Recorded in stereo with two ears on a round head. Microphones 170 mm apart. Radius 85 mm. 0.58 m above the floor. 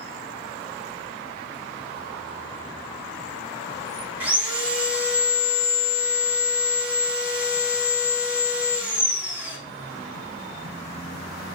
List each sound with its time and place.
4.2 s sawing: 10° right (ahead or behind), 6.5 m